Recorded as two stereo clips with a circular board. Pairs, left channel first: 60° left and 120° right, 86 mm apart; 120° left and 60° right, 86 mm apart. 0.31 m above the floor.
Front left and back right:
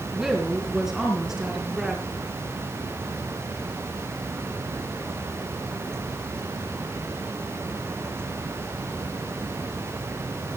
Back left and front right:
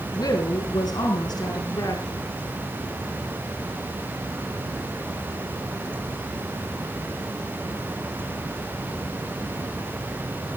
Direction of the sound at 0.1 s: 155° left.